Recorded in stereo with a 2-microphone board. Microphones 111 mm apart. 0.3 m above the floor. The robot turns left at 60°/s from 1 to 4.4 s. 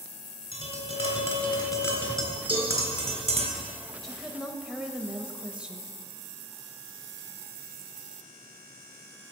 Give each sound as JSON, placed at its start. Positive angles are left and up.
{"t": 0.5, "sound": "tapping", "azimuth_deg": 75, "distance_m": 3.0}
{"t": 2.5, "sound": "a cowbell", "side_deg": 35, "distance_m": 5.0}
{"t": 4.0, "sound": "a woman speaking", "side_deg": 5, "distance_m": 1.0}